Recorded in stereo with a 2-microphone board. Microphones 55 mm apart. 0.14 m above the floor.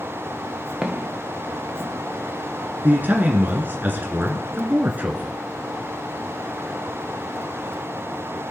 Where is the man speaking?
35° right (ahead or behind), 1.5 m.